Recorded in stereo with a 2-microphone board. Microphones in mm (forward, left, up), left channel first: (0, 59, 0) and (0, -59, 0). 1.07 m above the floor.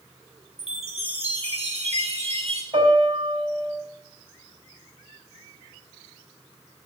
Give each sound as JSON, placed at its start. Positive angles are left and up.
{"t": 0.6, "sound": "a chime", "side_deg": -60, "distance_m": 1.3}
{"t": 2.7, "sound": "a piano", "side_deg": -65, "distance_m": 3.5}